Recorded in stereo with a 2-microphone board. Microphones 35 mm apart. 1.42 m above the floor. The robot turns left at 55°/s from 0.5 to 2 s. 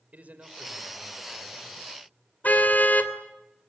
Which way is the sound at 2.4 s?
50° left (ahead or behind).